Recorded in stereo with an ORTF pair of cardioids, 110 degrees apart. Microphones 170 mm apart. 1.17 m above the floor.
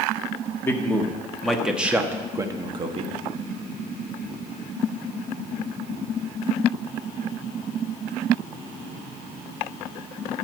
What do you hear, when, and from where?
0.6 s a man speaking: 15° left, 1.8 m; by 3.1 s 40° right, 1.4 m